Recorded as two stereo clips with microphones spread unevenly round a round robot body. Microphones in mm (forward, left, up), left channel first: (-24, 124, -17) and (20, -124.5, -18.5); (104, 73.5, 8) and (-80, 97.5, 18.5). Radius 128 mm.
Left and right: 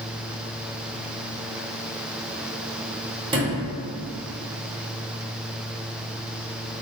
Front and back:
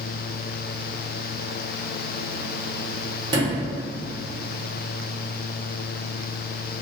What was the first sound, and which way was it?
A sliding door, 135° right.